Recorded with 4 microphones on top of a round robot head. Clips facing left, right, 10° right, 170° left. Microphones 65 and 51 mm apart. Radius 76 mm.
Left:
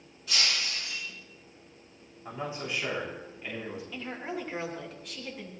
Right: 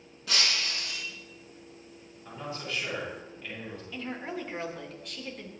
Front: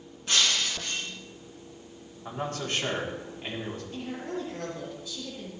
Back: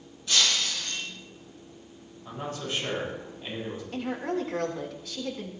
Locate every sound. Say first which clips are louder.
0.3 s breaking glass: right 1 dB, even; 70° right, 4.5 m
2.2 s a man speaking: left 2 dB, front 2 dB; 15° left, 6.5 m
3.9 s a woman speaking: right 2 dB, back 7 dB; straight behind, 3.5 m